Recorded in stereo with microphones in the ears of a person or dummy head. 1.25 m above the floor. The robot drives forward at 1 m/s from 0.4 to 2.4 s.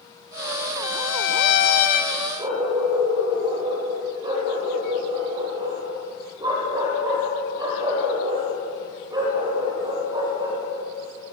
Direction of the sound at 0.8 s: 80° left.